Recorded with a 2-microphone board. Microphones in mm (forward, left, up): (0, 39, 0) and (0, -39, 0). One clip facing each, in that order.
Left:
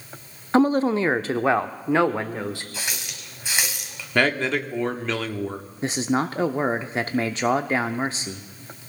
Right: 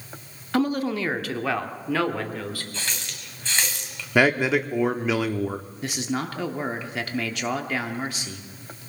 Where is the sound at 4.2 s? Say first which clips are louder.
Right 2 dB; 10° right (ahead or behind), 1.0 m.